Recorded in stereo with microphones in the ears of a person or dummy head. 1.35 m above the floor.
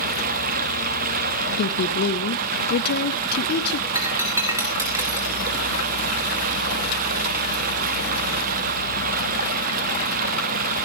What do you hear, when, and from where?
0.0 s running water: 45° right (ahead or behind), 1.0 m
1.6 s a woman speaking: 60° left (ahead or behind), 1.3 m
4.0 s breaking glass: 15° right (ahead or behind), 3.5 m